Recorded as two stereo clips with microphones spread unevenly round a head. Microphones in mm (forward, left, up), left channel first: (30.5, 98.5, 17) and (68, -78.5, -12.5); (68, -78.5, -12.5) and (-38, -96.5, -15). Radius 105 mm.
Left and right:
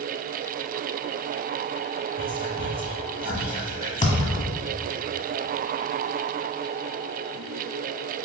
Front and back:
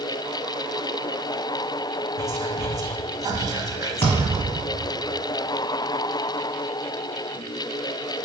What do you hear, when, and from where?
2.2 s whispering: 125° right, 0.8 m
4.0 s a thud: 80° left, 1.1 m